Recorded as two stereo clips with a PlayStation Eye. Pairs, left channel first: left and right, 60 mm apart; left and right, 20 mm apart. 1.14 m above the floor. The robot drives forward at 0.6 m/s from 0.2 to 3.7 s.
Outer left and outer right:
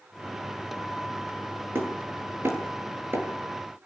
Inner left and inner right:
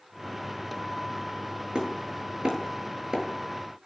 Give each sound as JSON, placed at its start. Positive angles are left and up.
{"t": 1.8, "sound": "hammering", "side_deg": -45, "distance_m": 8.0}